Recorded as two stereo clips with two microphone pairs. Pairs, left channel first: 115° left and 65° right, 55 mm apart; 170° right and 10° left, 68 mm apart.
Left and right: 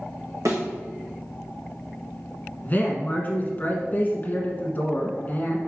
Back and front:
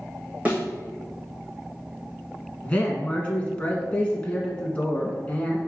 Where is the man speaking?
135° left, 1.2 m.